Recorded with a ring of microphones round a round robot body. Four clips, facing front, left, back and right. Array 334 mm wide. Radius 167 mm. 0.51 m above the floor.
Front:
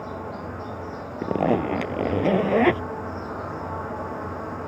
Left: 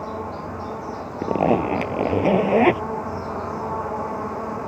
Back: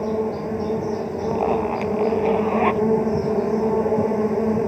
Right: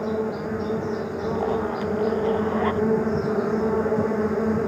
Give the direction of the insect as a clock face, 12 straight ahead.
5 o'clock.